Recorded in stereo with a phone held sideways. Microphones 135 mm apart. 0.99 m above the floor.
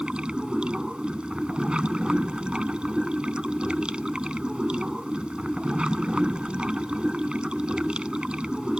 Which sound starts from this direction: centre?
Running water, at 0.0 s.